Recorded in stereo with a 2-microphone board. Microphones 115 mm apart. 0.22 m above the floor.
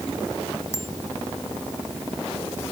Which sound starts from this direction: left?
A bicycle bell, at 0.7 s.